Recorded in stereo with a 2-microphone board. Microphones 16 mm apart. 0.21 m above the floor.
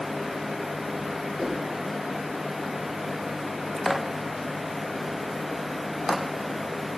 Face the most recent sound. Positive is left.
turn(degrees=-30)  # may be behind; listen again after turning